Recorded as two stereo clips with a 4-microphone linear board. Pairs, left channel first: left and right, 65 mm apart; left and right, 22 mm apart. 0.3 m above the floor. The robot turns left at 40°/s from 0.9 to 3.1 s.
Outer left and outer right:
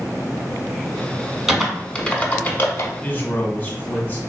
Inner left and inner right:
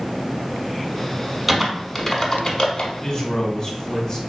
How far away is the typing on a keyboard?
About 0.7 m.